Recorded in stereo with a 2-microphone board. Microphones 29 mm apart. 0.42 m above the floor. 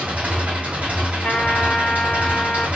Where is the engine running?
60° right (ahead or behind), 1.7 m.